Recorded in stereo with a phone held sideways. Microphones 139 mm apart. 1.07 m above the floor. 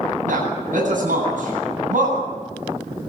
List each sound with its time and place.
0.3 s a man speaking: 70° right (ahead or behind), 9.5 m